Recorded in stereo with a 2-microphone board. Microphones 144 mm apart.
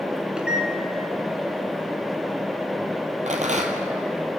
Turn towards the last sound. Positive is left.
turn(degrees=-65)  # may be behind; listen again after turning